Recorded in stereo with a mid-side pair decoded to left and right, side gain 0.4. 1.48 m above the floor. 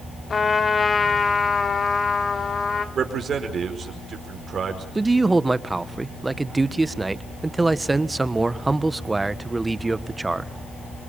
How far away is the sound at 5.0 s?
About 1.4 m.